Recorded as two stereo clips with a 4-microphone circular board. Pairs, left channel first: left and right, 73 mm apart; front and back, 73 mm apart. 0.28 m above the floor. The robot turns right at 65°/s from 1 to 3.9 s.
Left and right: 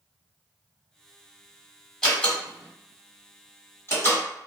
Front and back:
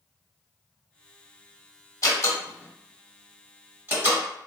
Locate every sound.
2.0 s a door slam: 10° left, 1.5 m; by 4.2 s 135° left, 1.5 m